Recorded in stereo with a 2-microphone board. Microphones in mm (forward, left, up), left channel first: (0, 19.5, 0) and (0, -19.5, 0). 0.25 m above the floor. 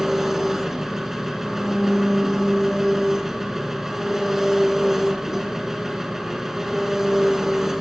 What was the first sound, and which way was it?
An engine running, 10° right (ahead or behind).